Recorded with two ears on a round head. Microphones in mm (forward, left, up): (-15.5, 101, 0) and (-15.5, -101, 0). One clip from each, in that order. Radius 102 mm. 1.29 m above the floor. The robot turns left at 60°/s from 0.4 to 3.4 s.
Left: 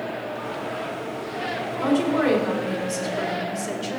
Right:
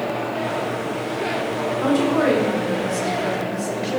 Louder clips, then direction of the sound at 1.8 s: Right 2 dB; 170° right.